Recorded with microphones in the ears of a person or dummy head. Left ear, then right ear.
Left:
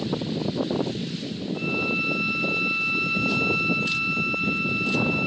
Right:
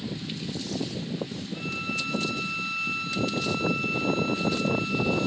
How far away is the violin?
About 1.9 m.